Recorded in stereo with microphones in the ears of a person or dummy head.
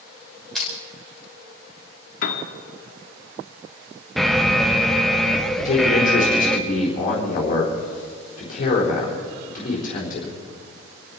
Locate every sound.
0.6 s crushing: centre (ahead or behind), 4 m
2.2 s a piano: 50° left (ahead or behind), 1.5 m
4.2 s an alarm: centre (ahead or behind), 0.9 m
5.6 s a man speaking: 45° left (ahead or behind), 4 m